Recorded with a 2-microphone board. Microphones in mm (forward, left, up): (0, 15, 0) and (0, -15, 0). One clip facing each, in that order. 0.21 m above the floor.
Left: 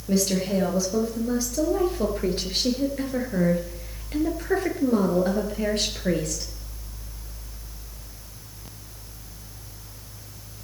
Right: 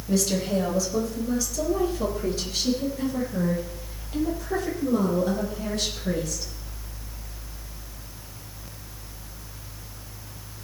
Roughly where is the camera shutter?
No camera shutter in this recording.